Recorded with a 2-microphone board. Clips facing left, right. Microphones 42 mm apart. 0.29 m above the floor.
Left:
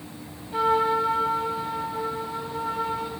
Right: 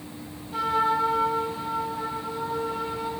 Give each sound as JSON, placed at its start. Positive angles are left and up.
{"t": 0.5, "sound": "a trumpet", "side_deg": 15, "distance_m": 0.7}